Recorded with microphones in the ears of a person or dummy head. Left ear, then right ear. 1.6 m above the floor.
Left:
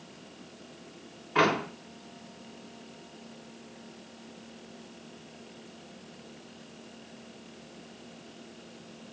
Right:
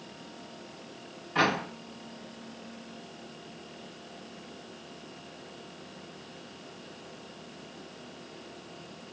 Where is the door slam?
25° left (ahead or behind), 3.5 m.